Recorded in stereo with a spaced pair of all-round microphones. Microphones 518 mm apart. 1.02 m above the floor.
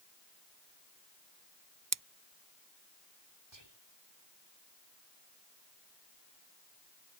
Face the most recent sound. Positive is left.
turn(degrees=-55)  # may be behind; listen again after turning